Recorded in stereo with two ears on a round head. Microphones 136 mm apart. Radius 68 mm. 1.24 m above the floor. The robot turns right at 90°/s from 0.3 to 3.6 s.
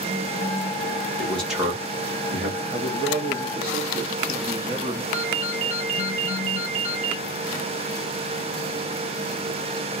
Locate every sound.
1.2 s a man speaking: 25° left (ahead or behind), 1.6 m; by 2.6 s 70° right (ahead or behind), 1.6 m
2.7 s a man speaking: 130° right, 0.6 m; by 5.0 s 50° right, 0.6 m
5.1 s a ringtone: 50° right (ahead or behind), 1.0 m